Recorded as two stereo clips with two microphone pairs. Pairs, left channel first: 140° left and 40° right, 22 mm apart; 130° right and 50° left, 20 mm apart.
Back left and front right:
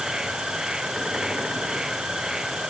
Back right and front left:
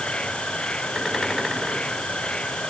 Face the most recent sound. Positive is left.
turn(degrees=-100)